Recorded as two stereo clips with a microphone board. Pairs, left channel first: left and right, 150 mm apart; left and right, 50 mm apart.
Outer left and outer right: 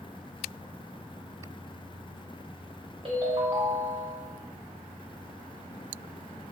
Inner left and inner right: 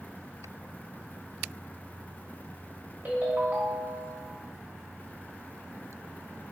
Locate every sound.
3.0 s a ringtone: 35° right (ahead or behind), 0.9 m